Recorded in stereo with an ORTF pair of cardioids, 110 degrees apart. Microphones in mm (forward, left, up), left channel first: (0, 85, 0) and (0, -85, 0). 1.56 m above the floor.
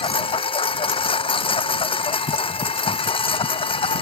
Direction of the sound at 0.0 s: 30° left.